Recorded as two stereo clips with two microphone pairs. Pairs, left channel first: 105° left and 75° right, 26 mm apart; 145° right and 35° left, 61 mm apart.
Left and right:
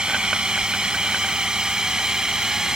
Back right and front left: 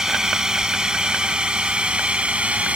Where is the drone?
40° right; by 2.8 s 20° right.